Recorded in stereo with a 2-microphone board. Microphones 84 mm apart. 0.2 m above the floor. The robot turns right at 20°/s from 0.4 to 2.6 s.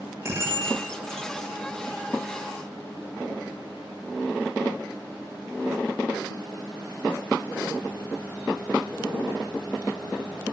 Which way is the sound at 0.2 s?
35° right (ahead or behind).